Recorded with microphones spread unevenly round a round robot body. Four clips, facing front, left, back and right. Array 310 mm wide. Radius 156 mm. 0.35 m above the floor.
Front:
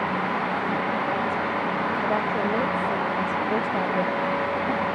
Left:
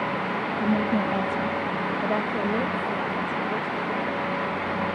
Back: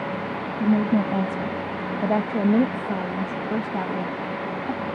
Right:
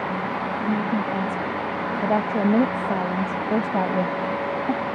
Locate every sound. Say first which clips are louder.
0.6 s a woman speaking: left 2 dB, back 4 dB; 175° left; by 4.8 s 85° right